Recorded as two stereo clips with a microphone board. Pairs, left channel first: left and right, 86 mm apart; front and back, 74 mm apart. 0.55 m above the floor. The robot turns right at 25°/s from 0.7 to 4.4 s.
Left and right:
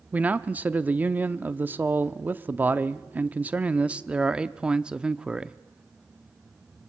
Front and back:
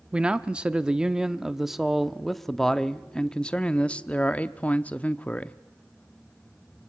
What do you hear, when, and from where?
0.1 s a man speaking: 125° right, 0.6 m; by 5.5 s 30° right, 0.6 m